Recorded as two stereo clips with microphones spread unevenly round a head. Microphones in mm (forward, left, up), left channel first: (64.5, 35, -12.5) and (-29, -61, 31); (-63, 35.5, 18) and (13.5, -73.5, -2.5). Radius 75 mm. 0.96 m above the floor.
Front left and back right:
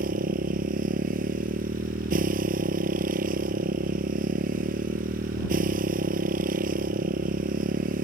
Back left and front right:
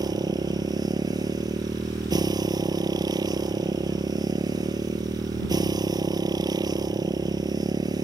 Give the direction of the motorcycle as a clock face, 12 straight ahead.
4 o'clock.